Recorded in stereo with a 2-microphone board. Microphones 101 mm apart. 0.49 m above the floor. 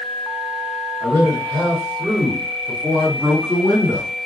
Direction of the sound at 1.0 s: 50° right (ahead or behind).